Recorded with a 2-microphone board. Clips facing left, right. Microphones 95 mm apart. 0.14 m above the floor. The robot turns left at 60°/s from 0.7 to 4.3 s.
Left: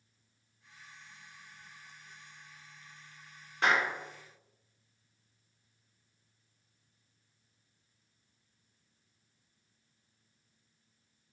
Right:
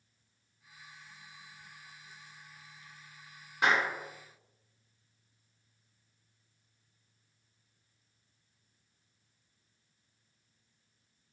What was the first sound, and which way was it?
A clap, 10° right (ahead or behind).